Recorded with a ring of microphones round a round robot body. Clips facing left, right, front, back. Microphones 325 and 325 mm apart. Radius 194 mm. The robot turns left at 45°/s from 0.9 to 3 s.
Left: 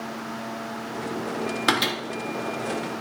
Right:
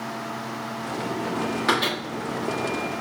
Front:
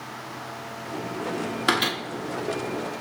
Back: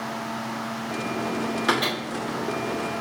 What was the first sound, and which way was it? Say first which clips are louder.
A microwave: left 1 dB, front 1 dB; 65° left.